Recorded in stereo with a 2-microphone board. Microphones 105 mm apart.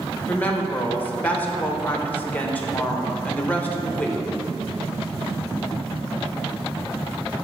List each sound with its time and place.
0.3 s a woman speaking: 15° left (ahead or behind), 0.9 m